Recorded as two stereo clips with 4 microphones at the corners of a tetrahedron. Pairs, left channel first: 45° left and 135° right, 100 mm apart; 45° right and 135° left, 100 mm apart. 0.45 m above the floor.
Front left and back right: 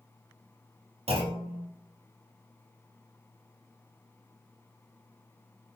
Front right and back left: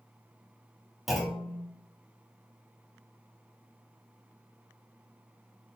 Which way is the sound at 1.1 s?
135° right.